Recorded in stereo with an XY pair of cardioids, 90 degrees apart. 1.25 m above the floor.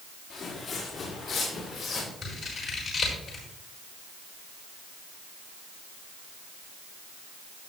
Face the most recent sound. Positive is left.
turn(degrees=50)